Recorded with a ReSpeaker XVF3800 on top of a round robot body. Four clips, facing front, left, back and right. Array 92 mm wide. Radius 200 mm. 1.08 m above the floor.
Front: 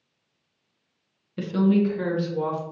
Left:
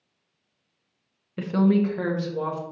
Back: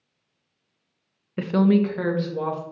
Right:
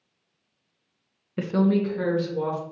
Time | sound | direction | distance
1.4 | a woman speaking | 155° right | 0.6 m